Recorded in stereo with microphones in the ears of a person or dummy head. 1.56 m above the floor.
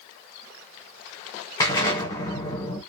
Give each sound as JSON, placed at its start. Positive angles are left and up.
{"t": 1.6, "sound": "an explosion", "side_deg": 20, "distance_m": 1.0}